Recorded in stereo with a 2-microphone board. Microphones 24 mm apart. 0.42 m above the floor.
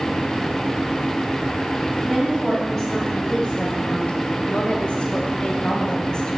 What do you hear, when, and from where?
2.0 s a woman speaking: 20° left (ahead or behind), 2.5 m; by 6.4 s 35° left (ahead or behind), 2 m